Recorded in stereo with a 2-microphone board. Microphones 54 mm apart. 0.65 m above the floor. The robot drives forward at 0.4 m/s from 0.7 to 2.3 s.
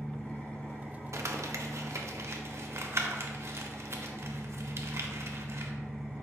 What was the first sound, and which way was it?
An engine running, 30° left (ahead or behind).